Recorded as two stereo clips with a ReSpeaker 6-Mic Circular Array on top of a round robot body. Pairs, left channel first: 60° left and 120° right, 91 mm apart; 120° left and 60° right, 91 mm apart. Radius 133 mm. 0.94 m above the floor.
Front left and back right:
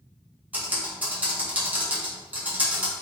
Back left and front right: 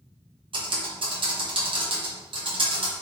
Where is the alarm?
No alarm in this recording.